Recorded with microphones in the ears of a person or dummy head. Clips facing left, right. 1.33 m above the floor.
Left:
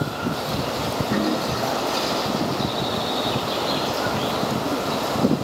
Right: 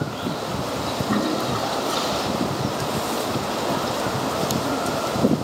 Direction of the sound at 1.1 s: 60° right (ahead or behind).